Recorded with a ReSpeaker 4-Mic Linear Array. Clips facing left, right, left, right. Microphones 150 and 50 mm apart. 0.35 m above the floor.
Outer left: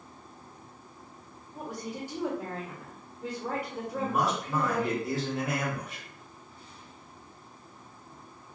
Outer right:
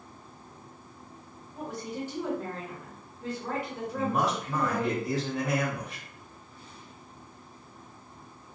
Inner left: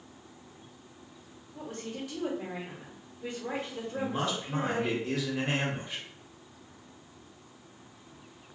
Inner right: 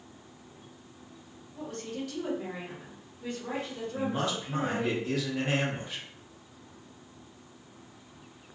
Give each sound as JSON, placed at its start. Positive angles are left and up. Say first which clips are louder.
{"t": 1.6, "sound": "a woman speaking", "louder": "outer right 2 dB, inner right 2 dB", "side_deg": 10, "distance_m": 1.0}
{"t": 3.9, "sound": "a man speaking", "louder": "outer right 1 dB, inner right 1 dB", "side_deg": 0, "distance_m": 1.1}